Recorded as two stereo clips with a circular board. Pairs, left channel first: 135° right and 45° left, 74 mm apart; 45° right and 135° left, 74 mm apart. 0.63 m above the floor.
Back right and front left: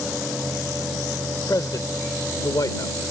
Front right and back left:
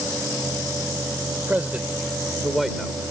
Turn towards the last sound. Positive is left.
turn(degrees=-130)